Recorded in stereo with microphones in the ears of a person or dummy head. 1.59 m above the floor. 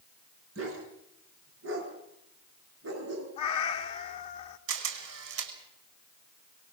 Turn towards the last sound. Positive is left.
turn(degrees=-75)  # may be behind; listen again after turning